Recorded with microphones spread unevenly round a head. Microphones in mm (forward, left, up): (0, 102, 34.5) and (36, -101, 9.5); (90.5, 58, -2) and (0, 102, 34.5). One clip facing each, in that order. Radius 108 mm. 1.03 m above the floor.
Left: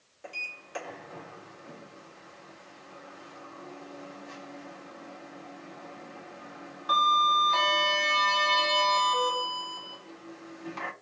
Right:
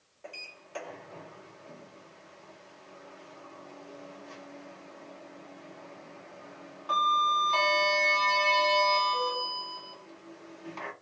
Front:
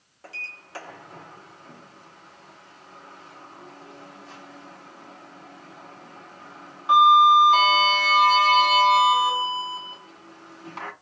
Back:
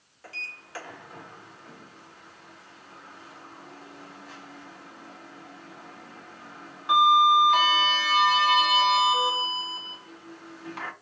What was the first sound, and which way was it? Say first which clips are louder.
A sliding door: left 1 dB, front 1 dB; 30° left.